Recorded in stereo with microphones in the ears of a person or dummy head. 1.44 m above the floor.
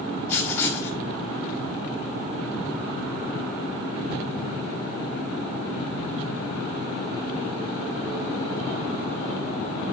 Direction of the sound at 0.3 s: 15° left (ahead or behind).